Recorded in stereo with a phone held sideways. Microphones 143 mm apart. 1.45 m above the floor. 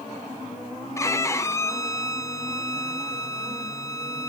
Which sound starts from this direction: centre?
A violin, at 1.0 s.